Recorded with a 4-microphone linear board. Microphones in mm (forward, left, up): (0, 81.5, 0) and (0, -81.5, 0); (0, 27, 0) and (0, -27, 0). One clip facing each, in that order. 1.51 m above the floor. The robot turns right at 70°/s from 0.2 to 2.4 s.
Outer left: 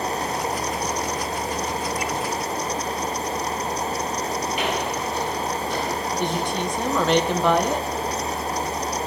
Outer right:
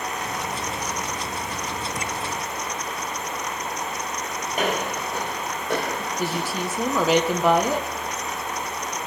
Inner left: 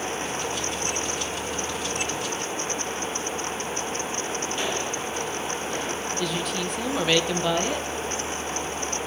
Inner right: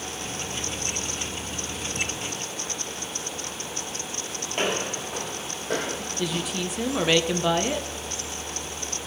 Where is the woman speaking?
5° right (ahead or behind), 1.3 m.